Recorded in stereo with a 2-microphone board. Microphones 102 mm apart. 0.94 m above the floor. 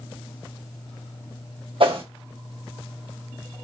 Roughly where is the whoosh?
Right.